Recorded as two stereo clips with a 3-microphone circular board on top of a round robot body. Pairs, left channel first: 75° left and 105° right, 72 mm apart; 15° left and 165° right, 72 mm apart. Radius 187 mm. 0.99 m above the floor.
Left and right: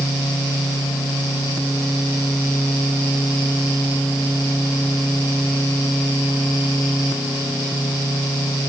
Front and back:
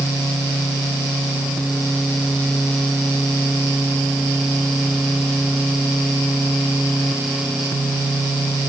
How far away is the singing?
I don't hear singing.